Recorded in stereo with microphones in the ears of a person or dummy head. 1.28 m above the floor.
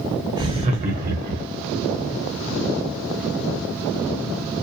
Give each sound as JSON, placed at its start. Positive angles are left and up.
{"t": 0.4, "sound": "laughter", "side_deg": -20, "distance_m": 0.8}